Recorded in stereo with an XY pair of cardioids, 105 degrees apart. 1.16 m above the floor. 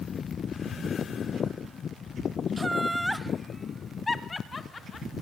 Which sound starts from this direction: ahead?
Laughter, at 2.6 s.